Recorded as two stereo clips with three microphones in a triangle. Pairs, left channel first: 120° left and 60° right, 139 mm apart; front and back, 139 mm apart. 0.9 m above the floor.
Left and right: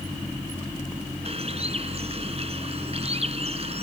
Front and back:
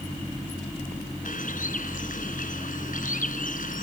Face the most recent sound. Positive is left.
turn(degrees=-15)